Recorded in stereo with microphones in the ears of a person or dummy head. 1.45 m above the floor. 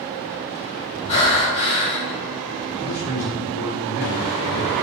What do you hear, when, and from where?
1.1 s breathing: 35° left (ahead or behind), 1.5 m
2.8 s a man speaking: 75° left (ahead or behind), 1.5 m